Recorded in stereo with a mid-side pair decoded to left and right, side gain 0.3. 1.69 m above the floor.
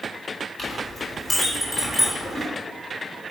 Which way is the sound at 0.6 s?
60° left.